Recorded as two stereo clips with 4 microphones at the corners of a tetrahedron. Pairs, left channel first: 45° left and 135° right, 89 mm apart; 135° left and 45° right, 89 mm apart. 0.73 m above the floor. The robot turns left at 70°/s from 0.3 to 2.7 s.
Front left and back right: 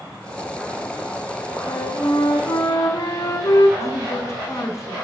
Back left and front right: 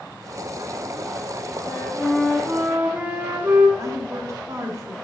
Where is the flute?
90° left, 0.9 m; by 3.7 s 15° left, 0.9 m.